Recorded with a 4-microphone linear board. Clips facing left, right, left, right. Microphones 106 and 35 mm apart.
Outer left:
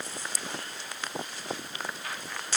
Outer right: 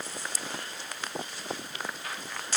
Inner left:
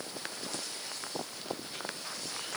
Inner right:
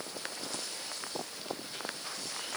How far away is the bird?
No bird in this recording.